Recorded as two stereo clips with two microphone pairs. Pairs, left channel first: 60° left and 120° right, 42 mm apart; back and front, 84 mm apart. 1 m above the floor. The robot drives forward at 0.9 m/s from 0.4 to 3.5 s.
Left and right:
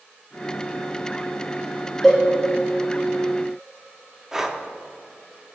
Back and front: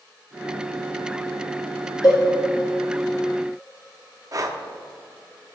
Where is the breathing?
40° right, 0.8 m.